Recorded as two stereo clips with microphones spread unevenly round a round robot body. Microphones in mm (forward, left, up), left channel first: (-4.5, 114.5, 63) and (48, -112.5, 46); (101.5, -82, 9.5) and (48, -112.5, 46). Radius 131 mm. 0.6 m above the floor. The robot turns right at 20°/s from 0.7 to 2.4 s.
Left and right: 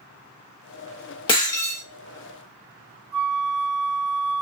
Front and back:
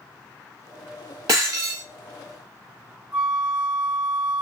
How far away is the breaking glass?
About 0.7 m.